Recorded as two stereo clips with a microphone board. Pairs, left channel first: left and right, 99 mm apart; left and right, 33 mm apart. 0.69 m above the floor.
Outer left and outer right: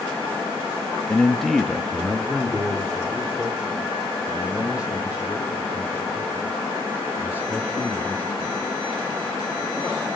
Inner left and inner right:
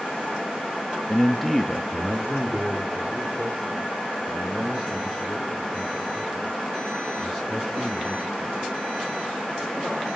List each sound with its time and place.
1.1 s a man speaking: 10° left (ahead or behind), 0.8 m; by 8.6 s 15° right (ahead or behind), 6.5 m